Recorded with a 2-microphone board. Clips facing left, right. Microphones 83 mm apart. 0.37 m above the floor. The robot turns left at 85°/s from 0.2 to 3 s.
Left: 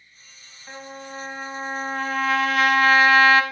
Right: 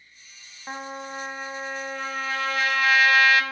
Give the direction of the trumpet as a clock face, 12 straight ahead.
4 o'clock.